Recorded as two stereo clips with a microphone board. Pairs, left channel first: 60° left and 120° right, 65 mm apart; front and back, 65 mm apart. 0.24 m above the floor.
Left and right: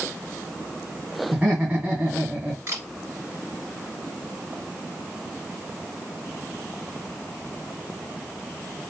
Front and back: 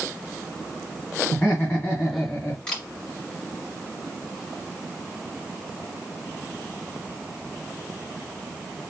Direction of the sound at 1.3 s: 60° right.